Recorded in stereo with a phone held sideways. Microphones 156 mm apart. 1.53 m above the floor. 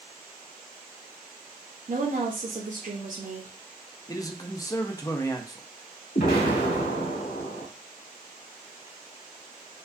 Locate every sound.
1.9 s a woman speaking: 55° right (ahead or behind), 0.8 m
4.1 s a man speaking: 20° left (ahead or behind), 0.5 m
6.2 s an explosion: 75° left (ahead or behind), 2 m